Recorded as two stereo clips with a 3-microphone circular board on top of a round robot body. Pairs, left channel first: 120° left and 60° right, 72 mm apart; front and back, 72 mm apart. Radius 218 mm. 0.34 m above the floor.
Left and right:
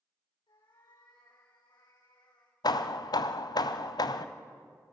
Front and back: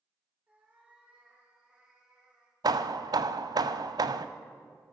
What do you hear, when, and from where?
0.5 s a cat meowing: 110° left, 7 m; by 2.5 s 100° left, 6.5 m
2.6 s hammering: 150° left, 1.0 m